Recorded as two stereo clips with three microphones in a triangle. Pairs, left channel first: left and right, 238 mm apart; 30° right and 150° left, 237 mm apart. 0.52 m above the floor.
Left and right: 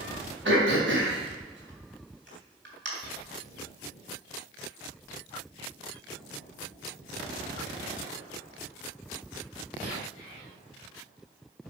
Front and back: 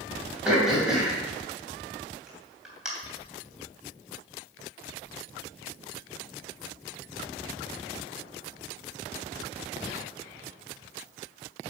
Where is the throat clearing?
125° right, 3 m.